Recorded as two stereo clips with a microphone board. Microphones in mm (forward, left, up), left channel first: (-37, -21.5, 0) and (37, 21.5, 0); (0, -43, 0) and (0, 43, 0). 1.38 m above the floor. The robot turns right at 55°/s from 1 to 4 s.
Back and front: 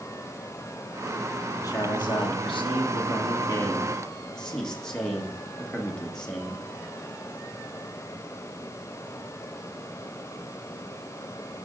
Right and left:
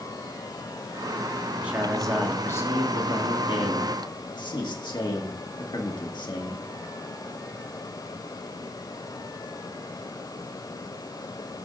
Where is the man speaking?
160° left, 1.6 m; by 6.7 s 70° right, 1.6 m.